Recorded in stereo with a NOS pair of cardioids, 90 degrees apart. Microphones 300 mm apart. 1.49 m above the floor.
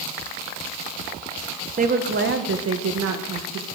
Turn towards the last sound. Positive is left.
turn(degrees=-70)